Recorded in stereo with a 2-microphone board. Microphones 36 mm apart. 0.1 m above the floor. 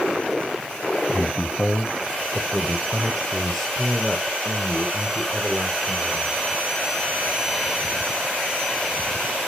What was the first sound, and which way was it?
A man speaking, 35° left (ahead or behind).